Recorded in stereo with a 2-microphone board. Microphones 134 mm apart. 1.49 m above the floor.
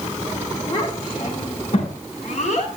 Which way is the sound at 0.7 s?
35° left (ahead or behind).